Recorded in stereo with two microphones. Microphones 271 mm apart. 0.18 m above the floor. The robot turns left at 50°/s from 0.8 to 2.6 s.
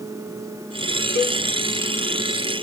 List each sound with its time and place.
1.1 s a cowbell: 75° right (ahead or behind), 4.5 m